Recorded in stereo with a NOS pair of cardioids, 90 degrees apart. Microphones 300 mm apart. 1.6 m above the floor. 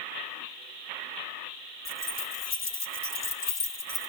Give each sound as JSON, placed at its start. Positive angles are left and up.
{"t": 1.9, "sound": "keys jangling", "azimuth_deg": 45, "distance_m": 3.5}